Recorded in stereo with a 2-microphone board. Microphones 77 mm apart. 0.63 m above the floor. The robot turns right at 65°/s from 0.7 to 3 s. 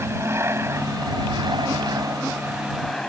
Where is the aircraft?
145° right; by 3.1 s 5° left.